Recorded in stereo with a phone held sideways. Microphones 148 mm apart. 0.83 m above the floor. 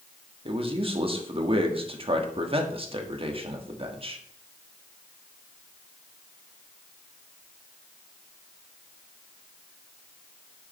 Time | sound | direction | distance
0.5 | a man speaking | 40° right (ahead or behind) | 1.4 m